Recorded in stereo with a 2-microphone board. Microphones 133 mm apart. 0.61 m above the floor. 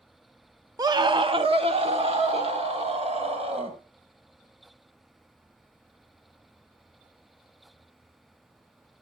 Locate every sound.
0.8 s a scream: 25° right (ahead or behind), 0.6 m; by 3.8 s 50° right (ahead or behind), 2.5 m